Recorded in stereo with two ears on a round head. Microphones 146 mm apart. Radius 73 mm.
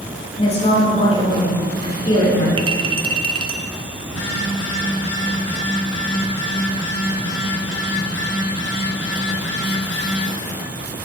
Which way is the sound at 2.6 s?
30° right (ahead or behind).